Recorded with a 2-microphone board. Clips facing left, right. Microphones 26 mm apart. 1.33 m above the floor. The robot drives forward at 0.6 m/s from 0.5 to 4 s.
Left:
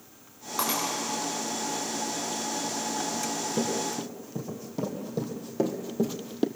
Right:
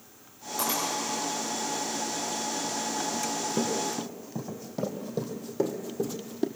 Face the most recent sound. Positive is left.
turn(degrees=40)  # may be behind; listen again after turning